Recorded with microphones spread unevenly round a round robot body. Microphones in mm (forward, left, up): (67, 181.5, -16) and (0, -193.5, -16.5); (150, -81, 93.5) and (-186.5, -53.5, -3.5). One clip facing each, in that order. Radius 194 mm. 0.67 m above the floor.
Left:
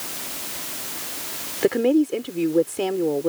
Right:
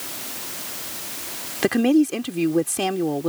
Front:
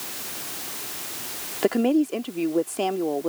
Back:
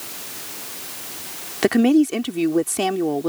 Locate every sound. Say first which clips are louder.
1.6 s a woman speaking: right 1 dB, back 5 dB; 160° right